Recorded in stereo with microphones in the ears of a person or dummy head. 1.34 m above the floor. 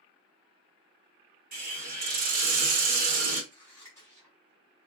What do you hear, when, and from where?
1.5 s a hiss: 45° right (ahead or behind), 1.1 m
3.5 s scissors: 15° left (ahead or behind), 1.6 m